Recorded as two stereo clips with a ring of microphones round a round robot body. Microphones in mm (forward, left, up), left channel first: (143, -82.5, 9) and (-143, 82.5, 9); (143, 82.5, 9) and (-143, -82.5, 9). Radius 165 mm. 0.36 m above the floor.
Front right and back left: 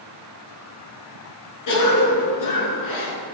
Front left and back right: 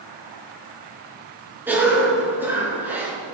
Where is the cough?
65° right, 4.5 m.